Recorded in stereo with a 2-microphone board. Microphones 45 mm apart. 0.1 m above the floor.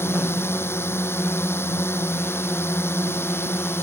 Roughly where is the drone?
Left.